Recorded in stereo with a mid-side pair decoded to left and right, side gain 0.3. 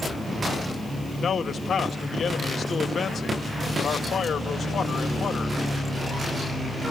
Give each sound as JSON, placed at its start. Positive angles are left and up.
{"t": 1.2, "sound": "a man speaking", "azimuth_deg": 55, "distance_m": 1.6}